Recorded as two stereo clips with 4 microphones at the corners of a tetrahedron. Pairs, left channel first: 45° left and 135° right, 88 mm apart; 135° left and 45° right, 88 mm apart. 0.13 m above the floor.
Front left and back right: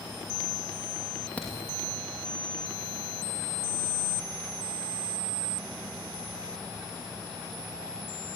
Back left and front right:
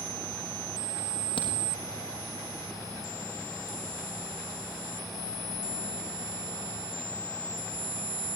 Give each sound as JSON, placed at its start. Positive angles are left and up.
{"t": 1.4, "sound": "a crack", "azimuth_deg": 120, "distance_m": 6.0}